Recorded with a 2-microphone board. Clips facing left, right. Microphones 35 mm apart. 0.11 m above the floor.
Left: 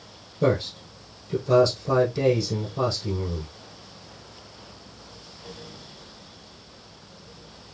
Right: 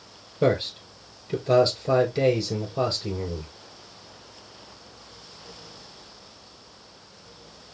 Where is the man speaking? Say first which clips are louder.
Even; 35° right (ahead or behind), 3 m.